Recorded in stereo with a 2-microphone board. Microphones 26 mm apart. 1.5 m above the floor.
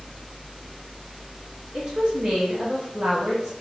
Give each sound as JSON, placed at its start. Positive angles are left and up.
{"t": 1.7, "sound": "a woman speaking", "side_deg": -30, "distance_m": 0.9}